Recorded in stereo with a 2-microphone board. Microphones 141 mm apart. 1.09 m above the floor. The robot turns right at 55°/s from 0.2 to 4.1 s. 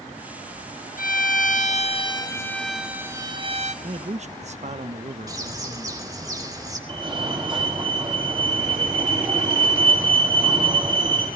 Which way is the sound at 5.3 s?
25° right (ahead or behind).